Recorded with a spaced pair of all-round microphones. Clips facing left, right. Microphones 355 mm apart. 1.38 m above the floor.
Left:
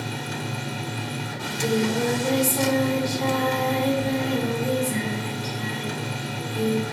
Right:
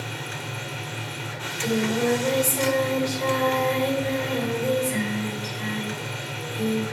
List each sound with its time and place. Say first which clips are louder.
0.0 s a machine running: left 4 dB; 60° left (ahead or behind), 0.7 m
1.4 s singing: left 1 dB; 55° left (ahead or behind), 2.5 m